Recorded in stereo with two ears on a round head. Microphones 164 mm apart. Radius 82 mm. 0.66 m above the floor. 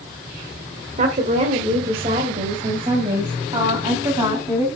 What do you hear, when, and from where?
1.0 s a woman speaking: 40° right (ahead or behind), 2.0 m; by 4.7 s 20° right (ahead or behind), 4 m